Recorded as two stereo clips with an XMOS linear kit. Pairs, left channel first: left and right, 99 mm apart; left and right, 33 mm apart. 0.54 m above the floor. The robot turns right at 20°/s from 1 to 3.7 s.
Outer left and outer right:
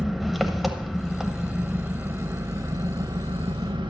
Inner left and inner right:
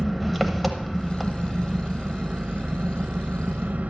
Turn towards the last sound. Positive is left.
turn(degrees=-125)